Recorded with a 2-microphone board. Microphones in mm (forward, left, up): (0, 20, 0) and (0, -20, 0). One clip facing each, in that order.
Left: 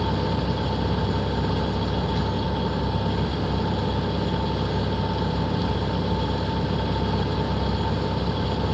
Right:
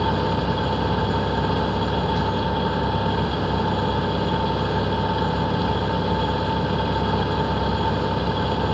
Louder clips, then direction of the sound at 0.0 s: Right 3 dB; 35° right (ahead or behind).